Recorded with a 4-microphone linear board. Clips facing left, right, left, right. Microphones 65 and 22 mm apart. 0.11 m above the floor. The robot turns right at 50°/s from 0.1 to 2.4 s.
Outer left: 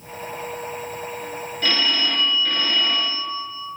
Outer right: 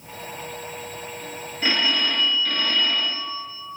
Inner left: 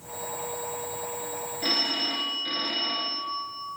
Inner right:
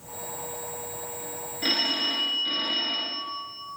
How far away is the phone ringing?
About 1.3 m.